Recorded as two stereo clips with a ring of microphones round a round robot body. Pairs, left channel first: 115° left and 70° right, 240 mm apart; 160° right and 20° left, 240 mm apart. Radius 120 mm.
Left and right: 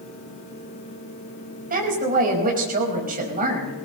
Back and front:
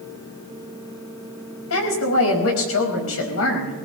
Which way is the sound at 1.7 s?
125° right.